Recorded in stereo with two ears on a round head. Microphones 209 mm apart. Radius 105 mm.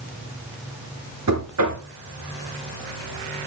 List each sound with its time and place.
1.3 s knocking: 75° right (ahead or behind), 3.5 m